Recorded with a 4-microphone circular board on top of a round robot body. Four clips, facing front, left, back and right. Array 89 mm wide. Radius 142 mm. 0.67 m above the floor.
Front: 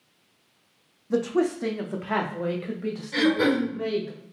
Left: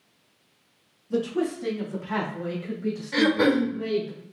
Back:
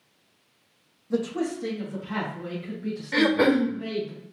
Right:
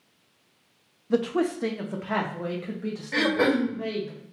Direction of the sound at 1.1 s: 75° right.